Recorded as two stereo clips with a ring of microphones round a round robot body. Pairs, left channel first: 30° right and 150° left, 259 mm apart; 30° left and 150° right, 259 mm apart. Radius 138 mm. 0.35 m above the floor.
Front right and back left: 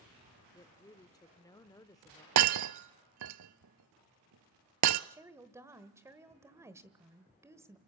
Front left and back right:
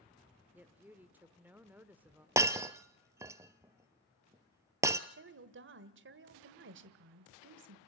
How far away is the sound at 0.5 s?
About 0.8 m.